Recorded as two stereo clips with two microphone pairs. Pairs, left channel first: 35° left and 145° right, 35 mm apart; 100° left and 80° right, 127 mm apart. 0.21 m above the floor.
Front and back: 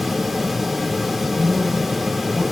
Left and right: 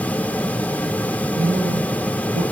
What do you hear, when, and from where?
1.4 s a man speaking: 60° right, 6.5 m